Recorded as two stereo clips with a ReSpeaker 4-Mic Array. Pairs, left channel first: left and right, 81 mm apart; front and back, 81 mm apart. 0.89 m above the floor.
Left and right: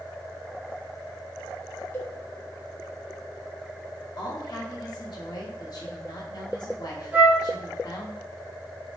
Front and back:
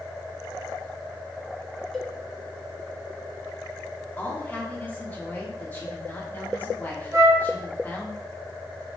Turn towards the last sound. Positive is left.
turn(degrees=-145)